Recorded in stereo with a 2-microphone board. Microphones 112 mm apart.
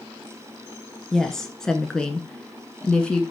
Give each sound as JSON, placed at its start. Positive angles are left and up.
{"t": 1.1, "sound": "a woman speaking", "side_deg": 5, "distance_m": 1.3}